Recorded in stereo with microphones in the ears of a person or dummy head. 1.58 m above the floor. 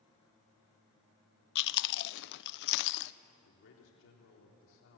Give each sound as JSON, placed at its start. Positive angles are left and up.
{"t": 1.6, "sound": "chewing", "side_deg": 60, "distance_m": 0.7}
{"t": 3.4, "sound": "a man speaking", "side_deg": 70, "distance_m": 4.0}